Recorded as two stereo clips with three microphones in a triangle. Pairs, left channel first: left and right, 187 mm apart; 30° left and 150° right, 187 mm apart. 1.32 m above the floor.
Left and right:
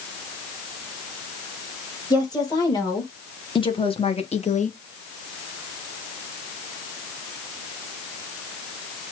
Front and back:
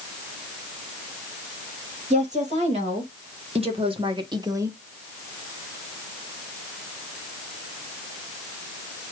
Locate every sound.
2.1 s a woman speaking: 160° left, 2.5 m; by 4.8 s 135° left, 0.7 m